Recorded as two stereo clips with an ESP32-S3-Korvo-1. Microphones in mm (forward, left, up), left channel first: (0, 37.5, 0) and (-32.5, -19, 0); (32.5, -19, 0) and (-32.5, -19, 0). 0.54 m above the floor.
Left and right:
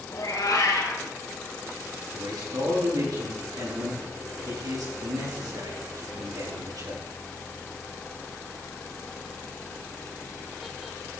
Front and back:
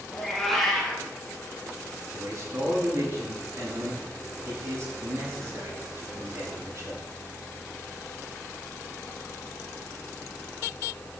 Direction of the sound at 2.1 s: 135° right.